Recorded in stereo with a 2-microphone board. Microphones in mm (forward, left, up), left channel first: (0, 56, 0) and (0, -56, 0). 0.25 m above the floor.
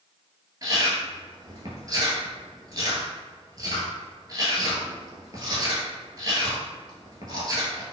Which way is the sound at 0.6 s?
30° right (ahead or behind).